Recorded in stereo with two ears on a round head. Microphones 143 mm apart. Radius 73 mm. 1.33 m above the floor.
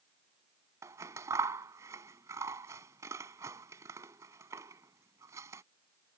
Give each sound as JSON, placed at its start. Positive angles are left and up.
{"t": 0.8, "sound": "scissors", "side_deg": -20}